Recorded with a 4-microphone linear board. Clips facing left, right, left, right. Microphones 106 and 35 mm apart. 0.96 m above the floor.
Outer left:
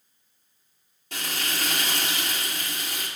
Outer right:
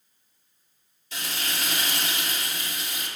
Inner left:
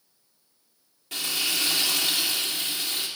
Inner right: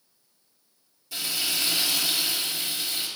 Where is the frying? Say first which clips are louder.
Outer left 1 dB, inner left 1 dB; 60° left (ahead or behind), 2.5 m.